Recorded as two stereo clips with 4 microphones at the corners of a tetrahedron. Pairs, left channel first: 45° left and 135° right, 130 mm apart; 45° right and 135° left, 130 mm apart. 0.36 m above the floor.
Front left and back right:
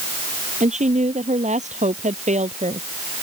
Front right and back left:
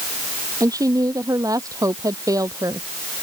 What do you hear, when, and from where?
0.6 s a woman speaking: 160° right